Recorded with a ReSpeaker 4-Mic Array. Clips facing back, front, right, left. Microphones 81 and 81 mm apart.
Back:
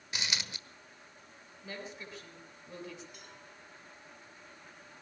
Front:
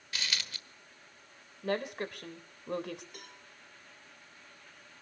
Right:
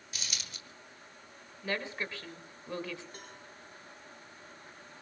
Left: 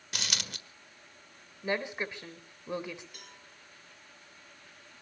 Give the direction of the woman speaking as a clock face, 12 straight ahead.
11 o'clock.